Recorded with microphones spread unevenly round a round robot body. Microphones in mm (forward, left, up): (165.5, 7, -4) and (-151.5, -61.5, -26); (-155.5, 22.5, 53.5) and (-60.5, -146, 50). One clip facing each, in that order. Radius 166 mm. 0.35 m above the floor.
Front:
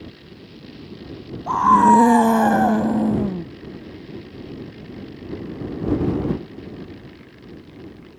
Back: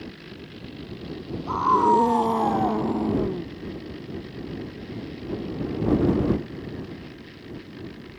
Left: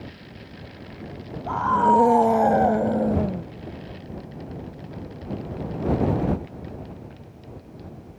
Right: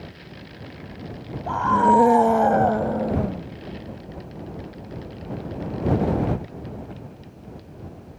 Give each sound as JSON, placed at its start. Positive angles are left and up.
{"t": 1.5, "sound": "a scream", "azimuth_deg": 10}